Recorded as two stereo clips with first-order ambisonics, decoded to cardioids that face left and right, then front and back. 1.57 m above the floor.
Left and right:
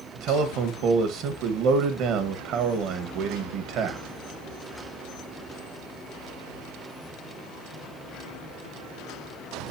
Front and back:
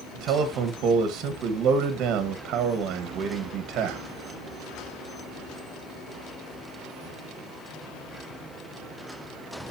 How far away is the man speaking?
About 1.7 m.